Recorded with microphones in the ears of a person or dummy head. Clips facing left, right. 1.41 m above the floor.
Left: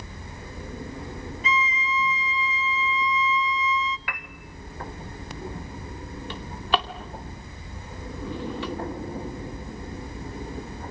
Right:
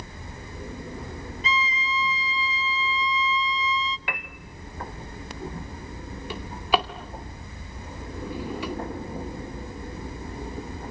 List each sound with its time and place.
1.4 s a violin: 25° right (ahead or behind), 0.5 m
4.1 s a piano: 30° right (ahead or behind), 1.3 m
6.3 s a drawer: 15° right (ahead or behind), 2 m